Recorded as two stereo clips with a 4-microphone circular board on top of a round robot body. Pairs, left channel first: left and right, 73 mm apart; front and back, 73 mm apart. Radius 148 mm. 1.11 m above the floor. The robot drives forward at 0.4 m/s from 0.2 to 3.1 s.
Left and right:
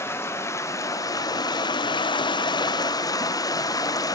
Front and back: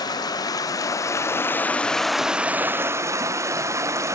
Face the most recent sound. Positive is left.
turn(degrees=130)